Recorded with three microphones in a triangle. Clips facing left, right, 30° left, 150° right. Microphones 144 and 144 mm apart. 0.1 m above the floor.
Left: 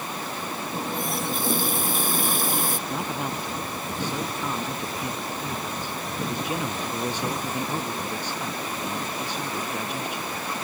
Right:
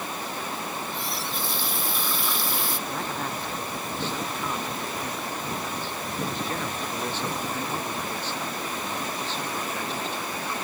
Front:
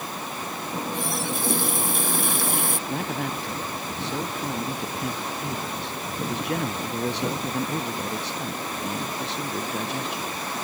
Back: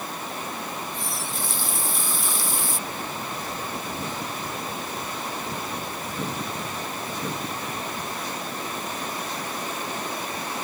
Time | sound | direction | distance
0.7 | a running tap | 50° left | ?
2.9 | a man speaking | 15° left | ?